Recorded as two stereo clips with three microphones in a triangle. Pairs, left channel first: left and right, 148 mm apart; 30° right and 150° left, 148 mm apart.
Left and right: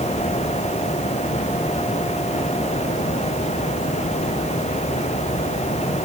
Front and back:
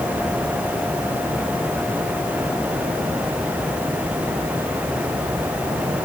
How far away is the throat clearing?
I don't hear throat clearing.